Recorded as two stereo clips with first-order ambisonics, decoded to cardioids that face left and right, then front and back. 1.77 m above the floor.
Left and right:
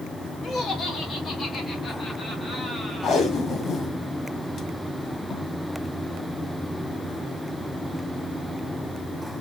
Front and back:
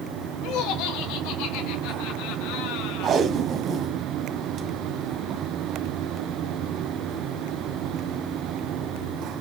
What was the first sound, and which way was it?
Laughter, 25° left.